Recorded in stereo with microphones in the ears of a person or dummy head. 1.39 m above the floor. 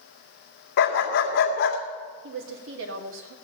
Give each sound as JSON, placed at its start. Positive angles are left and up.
{"t": 0.8, "sound": "a dog barking", "side_deg": 60, "distance_m": 1.9}
{"t": 2.2, "sound": "a woman speaking", "side_deg": -70, "distance_m": 2.5}